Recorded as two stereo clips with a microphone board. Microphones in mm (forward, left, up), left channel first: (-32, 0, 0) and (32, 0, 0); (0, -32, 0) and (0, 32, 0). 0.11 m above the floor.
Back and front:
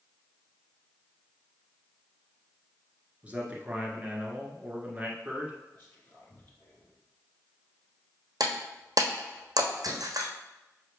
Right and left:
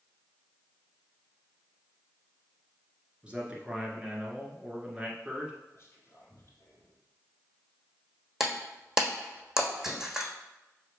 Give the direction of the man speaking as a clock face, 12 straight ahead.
11 o'clock.